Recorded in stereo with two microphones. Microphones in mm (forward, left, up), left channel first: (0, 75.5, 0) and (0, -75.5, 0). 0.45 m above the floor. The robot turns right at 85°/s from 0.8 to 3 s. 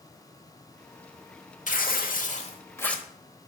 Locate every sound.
1.7 s tearing paper: 65° left, 0.9 m; by 3.0 s straight behind, 0.9 m